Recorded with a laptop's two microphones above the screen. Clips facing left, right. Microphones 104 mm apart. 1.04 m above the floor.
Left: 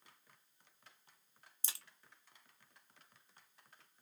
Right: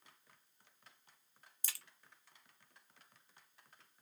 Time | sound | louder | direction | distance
1.6 | a crack | even | 25° left (ahead or behind) | 0.9 m